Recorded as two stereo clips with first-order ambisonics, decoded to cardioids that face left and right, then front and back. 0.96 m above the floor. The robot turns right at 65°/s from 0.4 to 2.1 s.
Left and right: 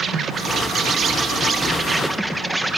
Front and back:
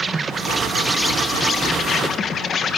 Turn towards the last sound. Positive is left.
turn(degrees=-10)